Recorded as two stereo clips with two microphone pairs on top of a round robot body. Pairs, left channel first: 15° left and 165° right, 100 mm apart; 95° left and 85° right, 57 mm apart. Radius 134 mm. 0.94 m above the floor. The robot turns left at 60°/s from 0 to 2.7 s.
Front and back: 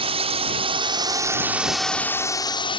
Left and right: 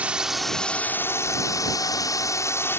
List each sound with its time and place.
0.0 s a drone: 145° right; by 2.8 s 50° left